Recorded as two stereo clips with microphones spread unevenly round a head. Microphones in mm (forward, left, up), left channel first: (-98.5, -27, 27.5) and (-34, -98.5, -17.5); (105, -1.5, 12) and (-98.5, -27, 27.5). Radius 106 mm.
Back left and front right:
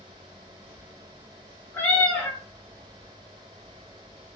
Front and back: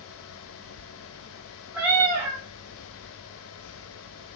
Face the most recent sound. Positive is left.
turn(degrees=115)